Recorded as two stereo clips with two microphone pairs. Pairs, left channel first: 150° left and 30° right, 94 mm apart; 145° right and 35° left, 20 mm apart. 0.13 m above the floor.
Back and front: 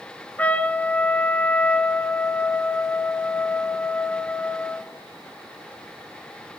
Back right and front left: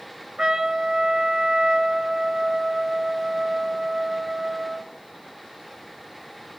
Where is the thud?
No thud in this recording.